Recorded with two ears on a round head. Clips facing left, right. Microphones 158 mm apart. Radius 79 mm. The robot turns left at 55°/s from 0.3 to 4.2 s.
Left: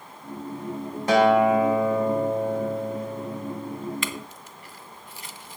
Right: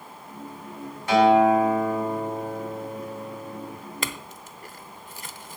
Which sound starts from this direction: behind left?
A guitar, at 1.1 s.